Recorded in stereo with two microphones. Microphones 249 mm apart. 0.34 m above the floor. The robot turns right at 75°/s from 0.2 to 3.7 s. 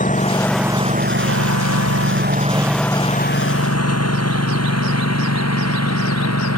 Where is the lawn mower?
30° left (ahead or behind); by 6.6 s 85° left.